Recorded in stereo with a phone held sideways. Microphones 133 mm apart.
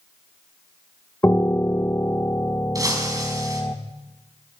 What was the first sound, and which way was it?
A piano, 20° left (ahead or behind).